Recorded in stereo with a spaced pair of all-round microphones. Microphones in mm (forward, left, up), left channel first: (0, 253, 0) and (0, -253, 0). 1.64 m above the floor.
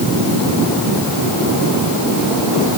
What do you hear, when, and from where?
Only background noise.